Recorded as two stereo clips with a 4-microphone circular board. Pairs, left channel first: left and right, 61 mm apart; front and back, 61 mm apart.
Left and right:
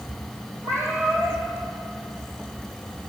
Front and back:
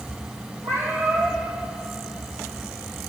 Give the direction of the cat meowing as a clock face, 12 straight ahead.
4 o'clock.